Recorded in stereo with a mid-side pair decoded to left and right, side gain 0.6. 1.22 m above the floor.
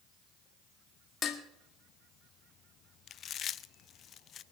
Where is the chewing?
45° left, 0.5 m.